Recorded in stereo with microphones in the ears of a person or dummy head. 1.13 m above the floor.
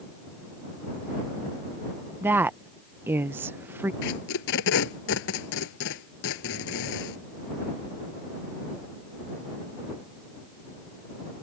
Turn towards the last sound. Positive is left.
turn(degrees=65)  # may be behind; listen again after turning